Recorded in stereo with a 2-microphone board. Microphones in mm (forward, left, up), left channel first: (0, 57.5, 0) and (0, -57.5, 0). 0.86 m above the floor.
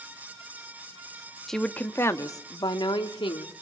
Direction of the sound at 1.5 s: 5° left (ahead or behind).